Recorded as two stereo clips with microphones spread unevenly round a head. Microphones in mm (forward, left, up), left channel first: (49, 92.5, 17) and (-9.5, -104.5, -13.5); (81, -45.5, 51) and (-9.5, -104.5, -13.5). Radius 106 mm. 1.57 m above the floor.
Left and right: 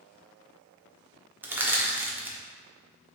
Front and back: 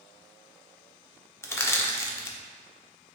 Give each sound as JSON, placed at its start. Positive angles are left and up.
{"t": 1.4, "sound": "crushing", "azimuth_deg": -25, "distance_m": 0.7}